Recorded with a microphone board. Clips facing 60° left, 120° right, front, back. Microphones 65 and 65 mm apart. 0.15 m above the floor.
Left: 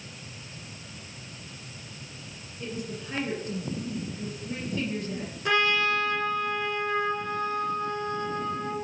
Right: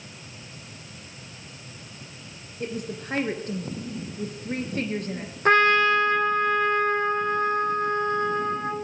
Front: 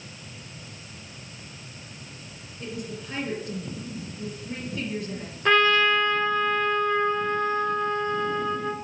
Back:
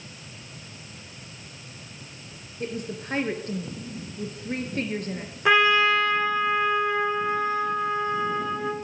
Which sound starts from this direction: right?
A trumpet, at 5.5 s.